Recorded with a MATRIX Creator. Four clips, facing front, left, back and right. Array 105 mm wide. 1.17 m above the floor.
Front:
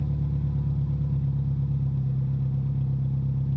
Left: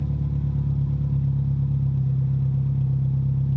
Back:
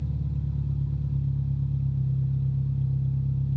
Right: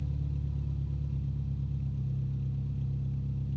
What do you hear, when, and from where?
0.0 s an engine running: 55° left, 1.4 m